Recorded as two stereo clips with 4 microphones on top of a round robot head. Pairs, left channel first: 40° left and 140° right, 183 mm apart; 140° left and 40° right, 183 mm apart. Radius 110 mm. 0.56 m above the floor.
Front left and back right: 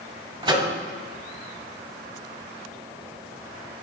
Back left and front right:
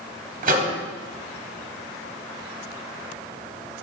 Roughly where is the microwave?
Right.